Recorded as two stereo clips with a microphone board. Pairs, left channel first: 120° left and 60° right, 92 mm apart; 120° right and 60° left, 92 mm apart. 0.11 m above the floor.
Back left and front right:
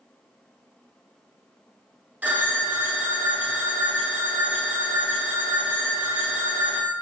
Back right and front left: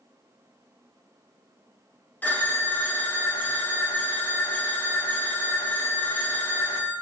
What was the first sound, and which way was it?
A phone ringing, 95° right.